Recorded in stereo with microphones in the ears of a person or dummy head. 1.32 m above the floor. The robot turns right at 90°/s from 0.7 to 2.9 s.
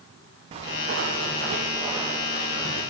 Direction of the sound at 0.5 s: 35° right (ahead or behind).